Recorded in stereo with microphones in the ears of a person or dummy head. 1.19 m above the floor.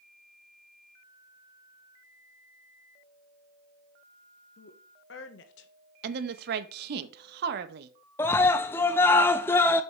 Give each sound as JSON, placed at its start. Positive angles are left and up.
{"t": 4.6, "sound": "a woman speaking", "side_deg": 65, "distance_m": 1.3}
{"t": 6.0, "sound": "a woman speaking", "side_deg": -65, "distance_m": 0.9}
{"t": 8.2, "sound": "a scream", "side_deg": 15, "distance_m": 0.5}